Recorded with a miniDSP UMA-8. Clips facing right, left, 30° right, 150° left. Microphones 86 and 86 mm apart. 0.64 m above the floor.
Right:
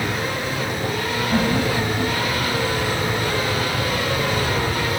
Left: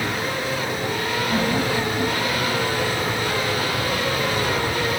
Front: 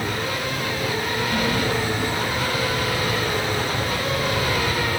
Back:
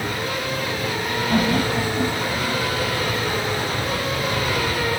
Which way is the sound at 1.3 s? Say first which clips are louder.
Right 2 dB, back 4 dB; straight behind.